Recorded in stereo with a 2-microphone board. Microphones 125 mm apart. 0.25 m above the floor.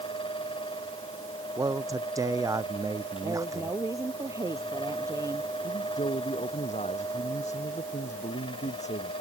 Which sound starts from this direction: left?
A man speaking, at 5.6 s.